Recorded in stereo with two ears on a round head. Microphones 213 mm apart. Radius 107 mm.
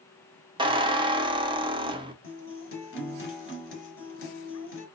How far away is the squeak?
About 0.6 m.